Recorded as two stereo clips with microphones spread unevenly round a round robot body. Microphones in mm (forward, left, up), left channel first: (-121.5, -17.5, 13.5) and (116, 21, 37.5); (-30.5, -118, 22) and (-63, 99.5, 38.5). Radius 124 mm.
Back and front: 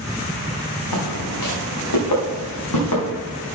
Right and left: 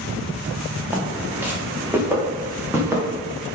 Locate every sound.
0.9 s footsteps: straight behind, 4 m